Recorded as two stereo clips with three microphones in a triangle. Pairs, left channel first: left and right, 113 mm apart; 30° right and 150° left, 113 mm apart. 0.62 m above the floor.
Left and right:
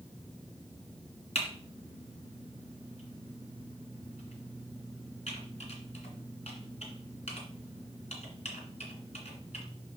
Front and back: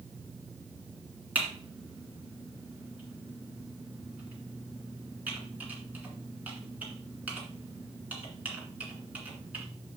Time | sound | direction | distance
1.4 | typing on a keyboard | 75° left | 2 m